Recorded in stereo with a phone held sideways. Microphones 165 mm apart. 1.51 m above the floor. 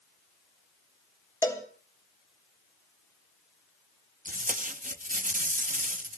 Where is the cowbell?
20° left (ahead or behind), 3 m.